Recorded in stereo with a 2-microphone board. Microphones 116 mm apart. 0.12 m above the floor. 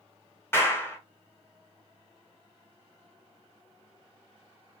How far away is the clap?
About 2.0 m.